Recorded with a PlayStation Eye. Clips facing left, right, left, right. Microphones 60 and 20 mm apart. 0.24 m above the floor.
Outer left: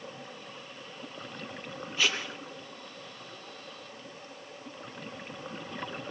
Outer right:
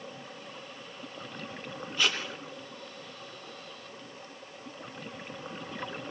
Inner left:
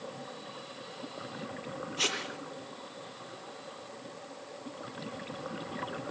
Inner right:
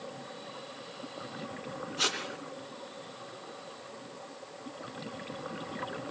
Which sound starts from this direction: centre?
Tape being pulled, at 2.0 s.